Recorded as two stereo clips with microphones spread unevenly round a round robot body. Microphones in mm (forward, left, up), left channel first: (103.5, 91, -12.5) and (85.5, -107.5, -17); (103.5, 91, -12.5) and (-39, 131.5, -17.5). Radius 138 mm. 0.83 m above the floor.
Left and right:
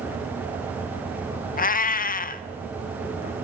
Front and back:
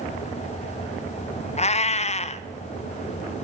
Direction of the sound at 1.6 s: 35° left.